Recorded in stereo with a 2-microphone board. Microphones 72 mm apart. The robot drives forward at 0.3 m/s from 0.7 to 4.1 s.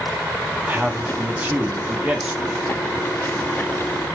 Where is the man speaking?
20° right (ahead or behind), 0.7 m; by 2.6 s 15° right (ahead or behind), 1.0 m.